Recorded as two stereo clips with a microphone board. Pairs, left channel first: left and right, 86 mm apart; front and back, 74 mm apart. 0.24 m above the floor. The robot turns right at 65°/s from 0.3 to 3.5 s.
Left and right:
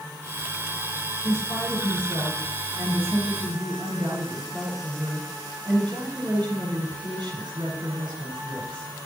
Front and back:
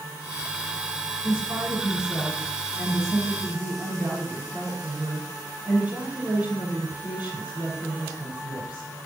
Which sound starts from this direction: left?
A woman speaking, at 1.2 s.